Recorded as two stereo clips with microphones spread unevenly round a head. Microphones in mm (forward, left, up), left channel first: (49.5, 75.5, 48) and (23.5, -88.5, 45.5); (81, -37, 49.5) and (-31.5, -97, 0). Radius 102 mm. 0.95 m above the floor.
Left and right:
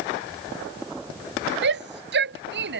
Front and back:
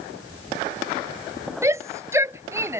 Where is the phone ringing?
I don't hear a phone ringing.